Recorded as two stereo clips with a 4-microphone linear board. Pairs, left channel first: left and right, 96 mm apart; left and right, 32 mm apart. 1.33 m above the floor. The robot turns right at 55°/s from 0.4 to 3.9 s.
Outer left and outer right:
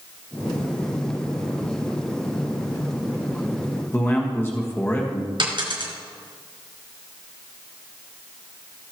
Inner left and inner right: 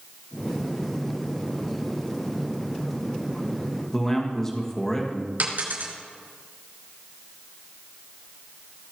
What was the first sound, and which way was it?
A man speaking, 20° left (ahead or behind).